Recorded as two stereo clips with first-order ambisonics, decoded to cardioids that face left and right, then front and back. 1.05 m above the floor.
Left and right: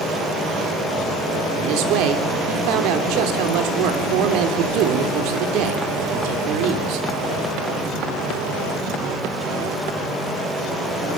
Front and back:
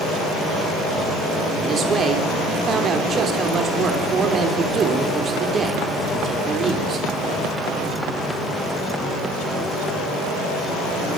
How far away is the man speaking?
About 3.5 m.